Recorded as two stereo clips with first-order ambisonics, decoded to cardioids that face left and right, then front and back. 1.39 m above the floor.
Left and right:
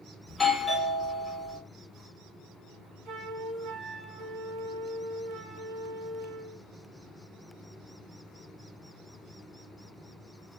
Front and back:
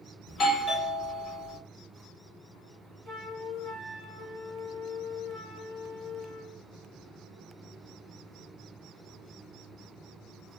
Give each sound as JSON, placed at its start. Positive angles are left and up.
{"t": 0.3, "sound": "a doorbell", "azimuth_deg": 15, "distance_m": 0.7}
{"t": 3.0, "sound": "a flute", "azimuth_deg": -95, "distance_m": 1.0}